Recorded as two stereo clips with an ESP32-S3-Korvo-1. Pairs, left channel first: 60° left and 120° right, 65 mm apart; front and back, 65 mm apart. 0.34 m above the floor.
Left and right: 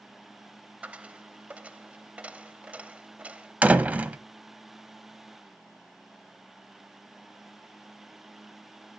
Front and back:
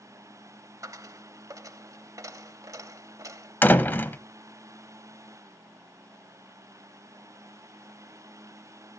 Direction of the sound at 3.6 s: 55° right.